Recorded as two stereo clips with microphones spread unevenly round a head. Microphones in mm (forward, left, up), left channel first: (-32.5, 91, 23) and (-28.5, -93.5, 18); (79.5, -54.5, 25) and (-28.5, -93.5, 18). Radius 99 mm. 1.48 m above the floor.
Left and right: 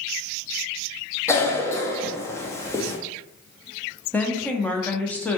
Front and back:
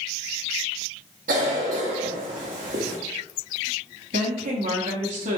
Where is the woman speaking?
175° left, 0.8 m.